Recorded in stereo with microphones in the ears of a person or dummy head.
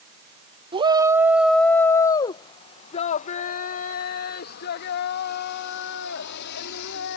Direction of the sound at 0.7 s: 25° right (ahead or behind).